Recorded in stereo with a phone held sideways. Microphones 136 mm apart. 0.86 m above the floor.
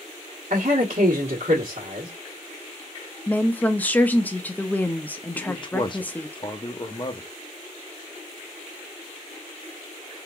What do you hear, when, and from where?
0.5 s a man speaking: 70° right (ahead or behind), 1.3 m
3.3 s a woman speaking: 10° left (ahead or behind), 0.6 m
5.3 s a man speaking: 35° left (ahead or behind), 0.7 m